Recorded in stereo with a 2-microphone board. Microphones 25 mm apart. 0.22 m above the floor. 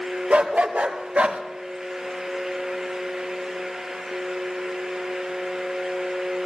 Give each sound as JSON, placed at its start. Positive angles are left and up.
{"t": 0.3, "sound": "a dog barking", "side_deg": -75, "distance_m": 2.5}